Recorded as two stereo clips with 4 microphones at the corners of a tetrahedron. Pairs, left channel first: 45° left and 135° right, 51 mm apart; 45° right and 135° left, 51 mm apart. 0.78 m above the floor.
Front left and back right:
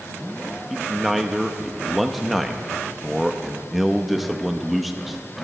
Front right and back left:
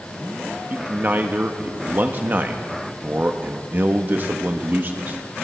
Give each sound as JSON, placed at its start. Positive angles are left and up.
{"t": 0.7, "sound": "a man speaking", "azimuth_deg": 135, "distance_m": 0.8}